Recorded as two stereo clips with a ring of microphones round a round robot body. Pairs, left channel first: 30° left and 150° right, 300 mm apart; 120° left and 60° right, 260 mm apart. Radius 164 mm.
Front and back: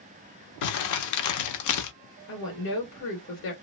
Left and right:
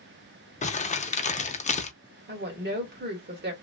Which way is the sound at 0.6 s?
55° left.